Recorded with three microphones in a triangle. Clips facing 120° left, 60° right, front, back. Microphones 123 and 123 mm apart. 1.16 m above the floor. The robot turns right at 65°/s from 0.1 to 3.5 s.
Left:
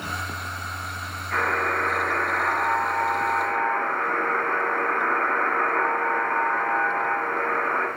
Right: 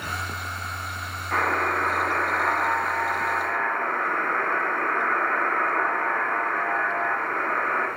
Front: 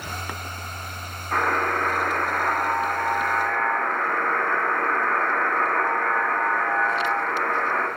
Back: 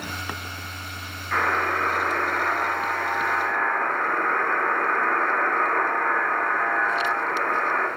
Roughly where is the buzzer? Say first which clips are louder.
Right 1 dB, front 1 dB; ahead right.